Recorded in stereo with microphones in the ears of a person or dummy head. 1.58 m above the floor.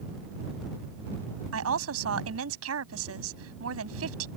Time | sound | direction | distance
1.5 | a woman speaking | 80° right | ?